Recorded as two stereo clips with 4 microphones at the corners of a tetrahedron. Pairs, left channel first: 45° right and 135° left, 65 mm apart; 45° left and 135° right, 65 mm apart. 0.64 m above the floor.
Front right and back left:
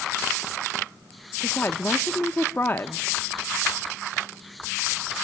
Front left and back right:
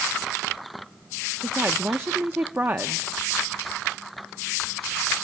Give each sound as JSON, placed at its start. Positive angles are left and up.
{"t": 1.4, "sound": "a woman speaking", "azimuth_deg": -90, "distance_m": 0.8}